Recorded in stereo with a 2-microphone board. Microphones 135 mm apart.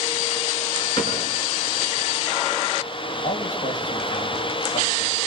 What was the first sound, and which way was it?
A cupboard door, 30° left (ahead or behind).